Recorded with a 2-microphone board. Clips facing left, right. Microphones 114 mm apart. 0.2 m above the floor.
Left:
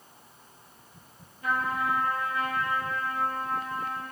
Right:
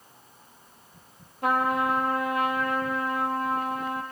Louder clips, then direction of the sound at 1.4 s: Right 5 dB; 75° right (ahead or behind).